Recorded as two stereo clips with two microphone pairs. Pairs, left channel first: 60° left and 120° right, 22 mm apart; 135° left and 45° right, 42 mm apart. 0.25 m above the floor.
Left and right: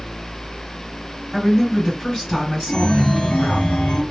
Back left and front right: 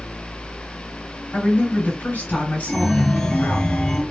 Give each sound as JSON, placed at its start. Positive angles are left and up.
{"t": 1.3, "sound": "a woman speaking", "azimuth_deg": 115, "distance_m": 2.0}
{"t": 2.7, "sound": "a chime", "azimuth_deg": 60, "distance_m": 0.8}